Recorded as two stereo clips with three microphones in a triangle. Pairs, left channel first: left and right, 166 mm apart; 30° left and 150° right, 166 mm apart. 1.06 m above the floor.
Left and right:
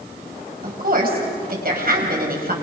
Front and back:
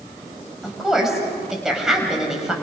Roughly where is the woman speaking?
Ahead right.